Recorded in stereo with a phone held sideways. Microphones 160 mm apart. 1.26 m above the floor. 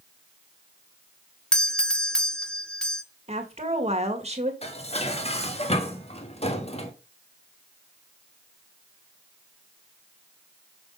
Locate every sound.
1.5 s a doorbell: 5° left (ahead or behind), 0.8 m
3.3 s a woman speaking: 40° right (ahead or behind), 2 m
4.6 s dishes clattering: 35° left (ahead or behind), 1.4 m